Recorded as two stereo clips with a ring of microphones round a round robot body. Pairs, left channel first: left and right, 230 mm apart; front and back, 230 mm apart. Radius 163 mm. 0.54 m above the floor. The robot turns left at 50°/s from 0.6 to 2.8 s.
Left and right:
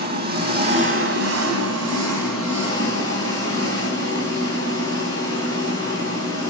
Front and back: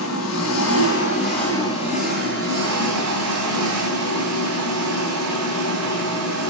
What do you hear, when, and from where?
0.0 s an engine running: 45° right, 3.5 m; by 6.5 s 155° right, 3.5 m